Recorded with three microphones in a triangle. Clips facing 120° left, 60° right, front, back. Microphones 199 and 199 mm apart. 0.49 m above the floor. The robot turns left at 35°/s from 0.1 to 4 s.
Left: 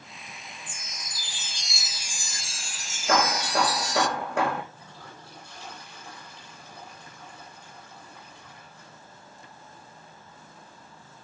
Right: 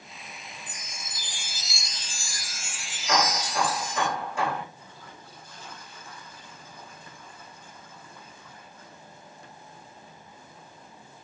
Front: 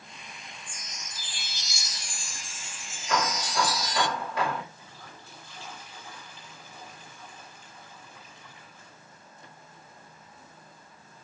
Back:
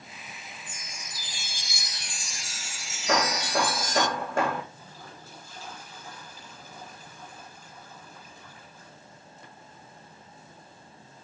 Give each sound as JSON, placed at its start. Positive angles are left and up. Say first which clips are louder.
{"t": 0.7, "sound": "a chime", "louder": "right 1 dB, back 1 dB", "azimuth_deg": -110, "distance_m": 0.7}
{"t": 3.1, "sound": "hammering", "louder": "left 2 dB, back 3 dB", "azimuth_deg": 170, "distance_m": 9.0}
{"t": 4.8, "sound": "a toilet flushing", "louder": "left 1 dB, back 2 dB", "azimuth_deg": 130, "distance_m": 10.0}